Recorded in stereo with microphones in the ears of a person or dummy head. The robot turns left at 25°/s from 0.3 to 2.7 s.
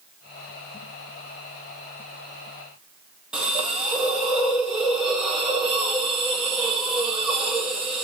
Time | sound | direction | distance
3.3 | a hiss | 5° right (ahead or behind) | 0.9 m